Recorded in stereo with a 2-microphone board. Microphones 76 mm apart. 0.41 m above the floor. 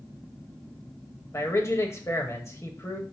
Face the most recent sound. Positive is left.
turn(degrees=40)  # may be behind; listen again after turning